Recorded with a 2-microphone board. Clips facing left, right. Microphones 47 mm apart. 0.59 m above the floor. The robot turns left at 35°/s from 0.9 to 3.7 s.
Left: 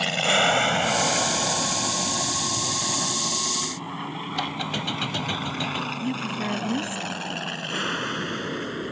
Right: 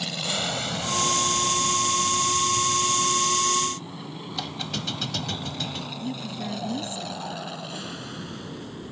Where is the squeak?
25° left (ahead or behind).